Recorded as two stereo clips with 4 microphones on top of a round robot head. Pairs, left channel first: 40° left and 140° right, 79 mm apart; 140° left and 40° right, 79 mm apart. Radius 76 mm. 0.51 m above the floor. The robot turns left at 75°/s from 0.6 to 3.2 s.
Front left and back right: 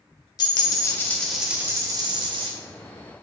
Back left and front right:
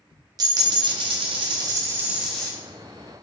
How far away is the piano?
No piano in this recording.